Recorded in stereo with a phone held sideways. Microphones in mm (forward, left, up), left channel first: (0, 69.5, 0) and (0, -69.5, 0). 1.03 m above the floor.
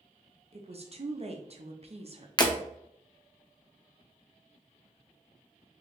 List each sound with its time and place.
0.5 s a woman speaking: 45° right (ahead or behind), 0.7 m
2.4 s breaking glass: 30° left (ahead or behind), 0.6 m